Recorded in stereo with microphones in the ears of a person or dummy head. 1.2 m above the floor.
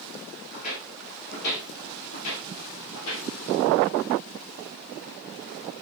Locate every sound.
0.5 s footsteps: 30° left (ahead or behind), 1.6 m; by 3.3 s 60° left (ahead or behind), 2.5 m